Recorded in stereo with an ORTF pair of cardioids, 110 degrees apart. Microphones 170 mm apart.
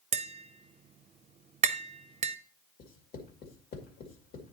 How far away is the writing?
About 2 m.